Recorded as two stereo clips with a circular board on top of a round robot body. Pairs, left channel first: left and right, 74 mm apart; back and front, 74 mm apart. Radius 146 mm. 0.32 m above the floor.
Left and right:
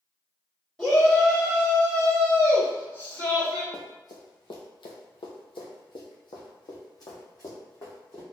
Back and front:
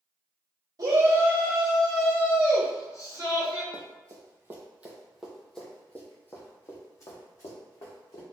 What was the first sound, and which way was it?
A shout, 20° left.